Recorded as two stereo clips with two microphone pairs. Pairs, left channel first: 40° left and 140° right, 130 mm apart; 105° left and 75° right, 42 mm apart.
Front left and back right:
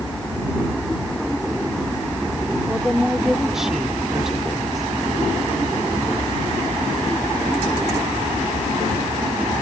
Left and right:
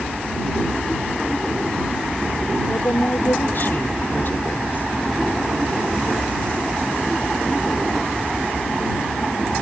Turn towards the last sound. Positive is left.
turn(degrees=135)